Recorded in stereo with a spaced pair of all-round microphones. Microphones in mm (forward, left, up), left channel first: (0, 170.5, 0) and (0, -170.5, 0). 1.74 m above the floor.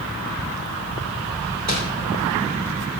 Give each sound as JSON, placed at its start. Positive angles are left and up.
{"t": 1.7, "sound": "crumpling", "side_deg": -55, "distance_m": 4.0}